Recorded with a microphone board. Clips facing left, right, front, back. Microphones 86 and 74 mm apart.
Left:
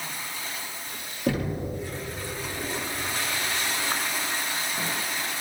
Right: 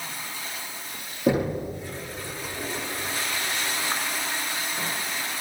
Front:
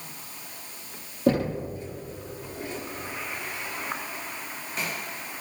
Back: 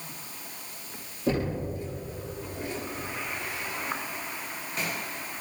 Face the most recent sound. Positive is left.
turn(degrees=-20)